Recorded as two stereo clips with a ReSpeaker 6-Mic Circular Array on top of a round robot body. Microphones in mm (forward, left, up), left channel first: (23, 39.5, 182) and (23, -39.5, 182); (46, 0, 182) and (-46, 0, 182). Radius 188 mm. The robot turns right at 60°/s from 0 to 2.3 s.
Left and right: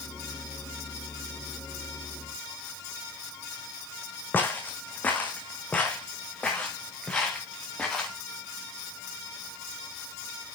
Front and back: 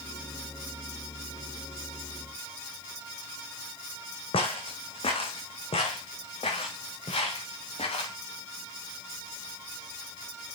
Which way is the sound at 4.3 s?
25° left.